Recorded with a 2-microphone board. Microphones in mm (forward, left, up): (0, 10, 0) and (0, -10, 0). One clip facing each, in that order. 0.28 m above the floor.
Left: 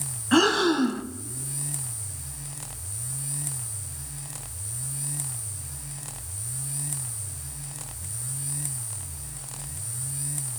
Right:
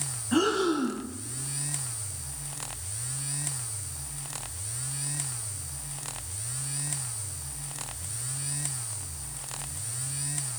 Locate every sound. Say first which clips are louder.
0.3 s breathing: left 5 dB; 55° left (ahead or behind), 1.2 m